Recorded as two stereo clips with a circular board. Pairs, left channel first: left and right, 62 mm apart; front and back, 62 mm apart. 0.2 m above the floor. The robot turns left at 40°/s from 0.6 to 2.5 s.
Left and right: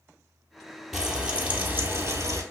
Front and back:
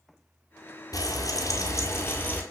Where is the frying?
5° right, 1.1 m; by 2.4 s 65° right, 1.1 m.